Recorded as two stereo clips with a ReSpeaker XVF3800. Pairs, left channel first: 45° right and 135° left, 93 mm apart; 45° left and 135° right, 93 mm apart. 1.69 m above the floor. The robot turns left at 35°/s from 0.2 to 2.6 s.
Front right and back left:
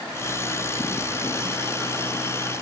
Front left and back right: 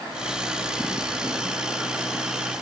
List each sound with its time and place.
Only background noise.